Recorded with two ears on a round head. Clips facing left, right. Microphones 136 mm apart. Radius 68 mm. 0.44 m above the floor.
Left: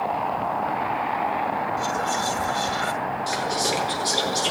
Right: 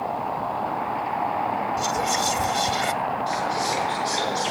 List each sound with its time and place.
1.8 s whispering: 20° right (ahead or behind), 0.8 m
3.3 s whispering: 65° left (ahead or behind), 8 m